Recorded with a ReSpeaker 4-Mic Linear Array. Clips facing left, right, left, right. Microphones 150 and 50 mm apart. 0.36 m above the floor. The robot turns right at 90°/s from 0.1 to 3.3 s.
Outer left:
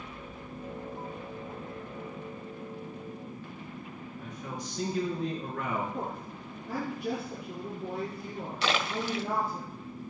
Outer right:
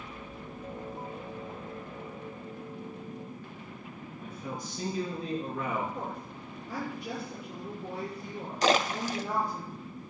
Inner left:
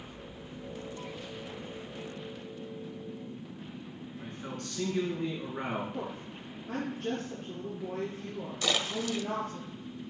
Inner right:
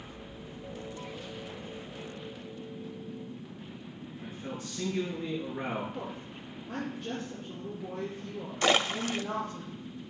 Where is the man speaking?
70° left (ahead or behind), 6 m.